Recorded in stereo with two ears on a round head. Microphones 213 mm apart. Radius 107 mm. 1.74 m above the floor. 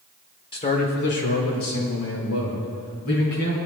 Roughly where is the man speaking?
Left.